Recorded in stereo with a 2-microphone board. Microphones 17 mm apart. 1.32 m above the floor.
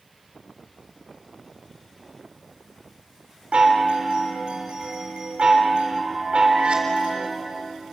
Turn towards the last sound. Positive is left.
turn(degrees=-85)